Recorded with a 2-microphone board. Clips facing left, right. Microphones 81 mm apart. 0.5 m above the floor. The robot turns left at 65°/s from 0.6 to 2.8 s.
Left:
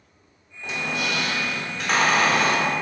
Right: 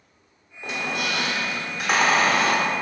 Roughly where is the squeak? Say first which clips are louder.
Even; right.